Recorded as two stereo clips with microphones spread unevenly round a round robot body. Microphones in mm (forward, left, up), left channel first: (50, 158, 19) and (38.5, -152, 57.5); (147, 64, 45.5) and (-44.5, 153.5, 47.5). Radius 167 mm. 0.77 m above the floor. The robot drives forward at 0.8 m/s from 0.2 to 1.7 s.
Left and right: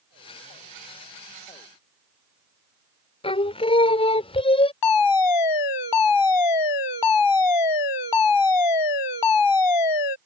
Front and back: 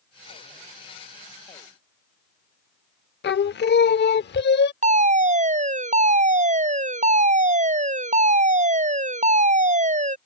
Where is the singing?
10° left.